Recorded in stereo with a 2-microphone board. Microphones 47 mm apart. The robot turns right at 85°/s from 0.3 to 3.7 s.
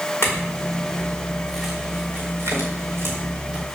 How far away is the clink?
About 4.5 m.